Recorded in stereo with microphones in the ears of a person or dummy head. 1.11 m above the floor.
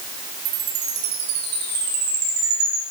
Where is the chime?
90° right, 4 m.